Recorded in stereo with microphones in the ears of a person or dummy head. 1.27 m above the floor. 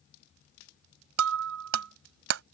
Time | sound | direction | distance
1.2 | breaking glass | 60° right (ahead or behind) | ?